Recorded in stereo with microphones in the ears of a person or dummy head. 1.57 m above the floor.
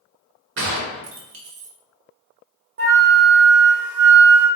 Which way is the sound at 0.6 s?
65° right (ahead or behind).